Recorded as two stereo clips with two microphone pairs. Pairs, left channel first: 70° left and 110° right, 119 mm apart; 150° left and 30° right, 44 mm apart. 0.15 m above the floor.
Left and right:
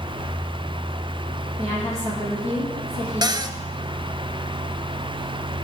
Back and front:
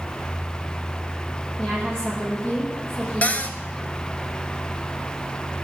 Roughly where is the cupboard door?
Behind.